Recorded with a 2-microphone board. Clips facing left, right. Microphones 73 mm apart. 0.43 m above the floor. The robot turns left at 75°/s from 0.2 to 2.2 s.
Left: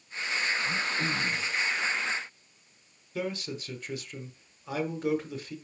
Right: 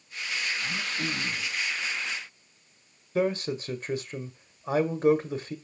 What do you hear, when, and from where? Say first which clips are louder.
0.6 s throat clearing: left 2 dB; 140° right, 2.5 m; by 1.6 s 150° left, 2.5 m
3.1 s a man speaking: right 7 dB; 35° right (ahead or behind), 1.1 m